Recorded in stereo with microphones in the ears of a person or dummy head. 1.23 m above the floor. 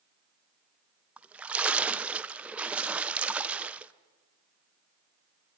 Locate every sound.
1.2 s a splash: 10° right (ahead or behind), 0.5 m